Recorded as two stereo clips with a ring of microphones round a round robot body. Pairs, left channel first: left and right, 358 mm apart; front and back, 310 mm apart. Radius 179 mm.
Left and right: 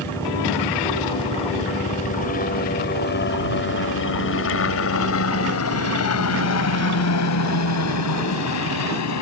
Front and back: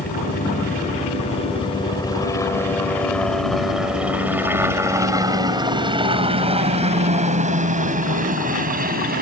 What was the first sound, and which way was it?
A helicopter, 15° left.